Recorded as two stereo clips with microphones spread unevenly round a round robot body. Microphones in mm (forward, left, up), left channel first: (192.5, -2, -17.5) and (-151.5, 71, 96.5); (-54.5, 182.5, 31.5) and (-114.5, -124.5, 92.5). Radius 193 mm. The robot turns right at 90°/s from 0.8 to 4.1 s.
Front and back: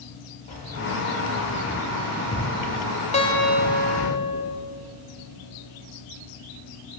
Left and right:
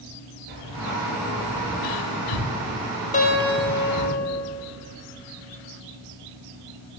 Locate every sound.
0.5 s keys jangling: 65° right, 4.5 m; by 4.1 s 125° right, 4.5 m
3.1 s a guitar: 30° left, 2.0 m; by 4.4 s 120° left, 2.0 m